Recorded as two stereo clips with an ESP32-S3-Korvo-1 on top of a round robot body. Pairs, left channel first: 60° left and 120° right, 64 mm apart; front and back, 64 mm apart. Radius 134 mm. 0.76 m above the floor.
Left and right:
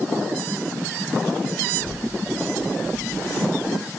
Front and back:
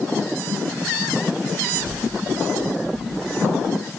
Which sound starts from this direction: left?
A child speaking, at 1.8 s.